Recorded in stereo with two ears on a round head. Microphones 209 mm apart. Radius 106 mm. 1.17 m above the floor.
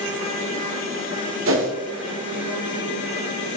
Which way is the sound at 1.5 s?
65° right (ahead or behind).